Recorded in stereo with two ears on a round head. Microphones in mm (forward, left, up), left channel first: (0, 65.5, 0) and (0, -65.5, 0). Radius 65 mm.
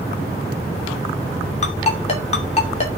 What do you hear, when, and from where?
1.6 s a ringtone: 45° left (ahead or behind), 2.5 m